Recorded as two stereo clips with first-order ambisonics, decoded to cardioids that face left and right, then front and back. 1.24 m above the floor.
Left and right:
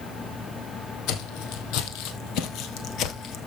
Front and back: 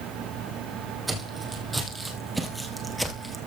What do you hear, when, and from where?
1.1 s footsteps: 95° left, 3 m; by 3.4 s 80° left, 1.5 m